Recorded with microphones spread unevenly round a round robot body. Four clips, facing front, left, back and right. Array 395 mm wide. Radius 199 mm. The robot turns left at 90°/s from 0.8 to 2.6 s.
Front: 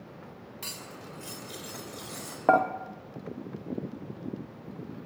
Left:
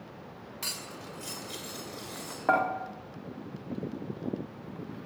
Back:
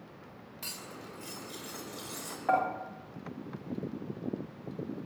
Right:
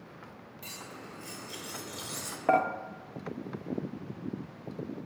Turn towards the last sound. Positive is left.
turn(degrees=-15)